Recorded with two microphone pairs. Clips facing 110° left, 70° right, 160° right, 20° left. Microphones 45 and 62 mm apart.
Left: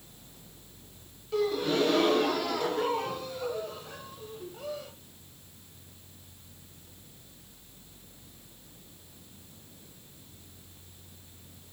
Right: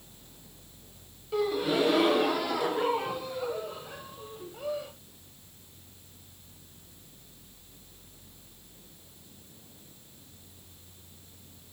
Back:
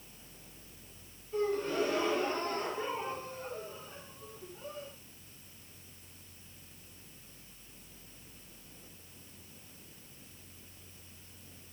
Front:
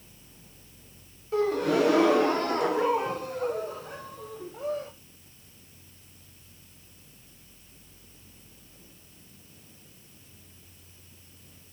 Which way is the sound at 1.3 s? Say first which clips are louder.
Even, front 8 dB; 10° left.